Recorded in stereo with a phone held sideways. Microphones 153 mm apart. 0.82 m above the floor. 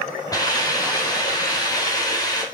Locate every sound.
0.3 s a hiss: 25° left (ahead or behind), 4 m